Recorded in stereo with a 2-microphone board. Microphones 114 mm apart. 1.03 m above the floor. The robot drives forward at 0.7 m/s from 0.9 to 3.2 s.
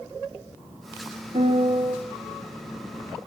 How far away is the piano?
About 3 m.